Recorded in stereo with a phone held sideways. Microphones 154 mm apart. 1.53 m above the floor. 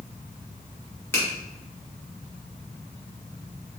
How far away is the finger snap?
About 1.4 m.